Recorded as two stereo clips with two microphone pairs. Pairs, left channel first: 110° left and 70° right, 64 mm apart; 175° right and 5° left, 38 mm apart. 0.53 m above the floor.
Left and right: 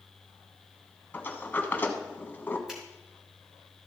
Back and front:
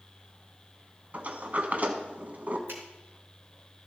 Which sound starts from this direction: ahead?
A finger snap, at 2.7 s.